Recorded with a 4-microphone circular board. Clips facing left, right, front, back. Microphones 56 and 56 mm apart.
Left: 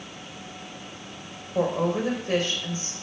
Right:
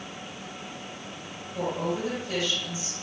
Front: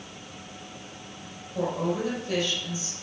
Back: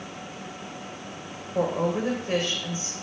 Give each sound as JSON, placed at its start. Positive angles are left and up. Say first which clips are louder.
{"t": 1.6, "sound": "a woman speaking", "louder": "left 5 dB, back 3 dB", "azimuth_deg": 130, "distance_m": 4.5}